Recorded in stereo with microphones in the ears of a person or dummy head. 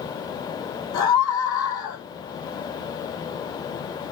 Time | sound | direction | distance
0.9 | a scream | 25° left (ahead or behind) | 5 m